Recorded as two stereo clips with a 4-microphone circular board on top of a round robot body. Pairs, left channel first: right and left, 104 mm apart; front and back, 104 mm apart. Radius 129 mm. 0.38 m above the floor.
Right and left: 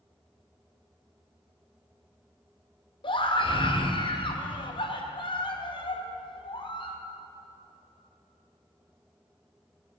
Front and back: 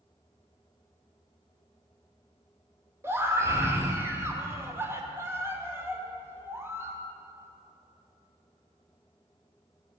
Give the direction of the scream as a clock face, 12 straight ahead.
4 o'clock.